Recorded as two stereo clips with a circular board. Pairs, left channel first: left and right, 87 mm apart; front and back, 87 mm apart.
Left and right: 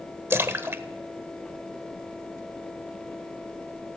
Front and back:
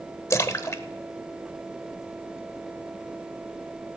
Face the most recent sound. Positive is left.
turn(degrees=-40)